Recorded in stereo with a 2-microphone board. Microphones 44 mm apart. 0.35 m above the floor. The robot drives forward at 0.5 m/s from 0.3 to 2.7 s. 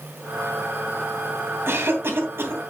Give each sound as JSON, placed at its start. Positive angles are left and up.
{"t": 1.7, "sound": "a cough", "side_deg": -60, "distance_m": 2.5}